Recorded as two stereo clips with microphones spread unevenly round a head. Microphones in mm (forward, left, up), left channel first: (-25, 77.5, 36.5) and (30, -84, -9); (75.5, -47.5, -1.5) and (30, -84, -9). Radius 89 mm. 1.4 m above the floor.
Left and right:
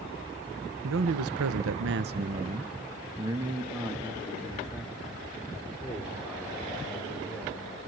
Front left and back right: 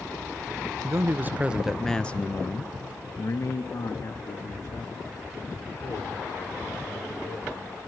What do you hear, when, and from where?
0.8 s a man speaking: 95° right, 0.9 m; by 7.8 s 25° left, 4.5 m